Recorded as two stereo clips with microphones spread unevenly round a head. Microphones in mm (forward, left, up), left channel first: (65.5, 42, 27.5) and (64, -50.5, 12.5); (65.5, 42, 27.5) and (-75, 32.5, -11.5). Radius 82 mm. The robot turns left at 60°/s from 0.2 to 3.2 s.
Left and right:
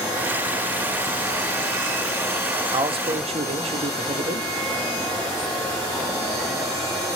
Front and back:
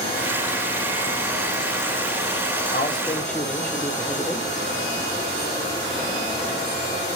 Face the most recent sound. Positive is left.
turn(degrees=-80)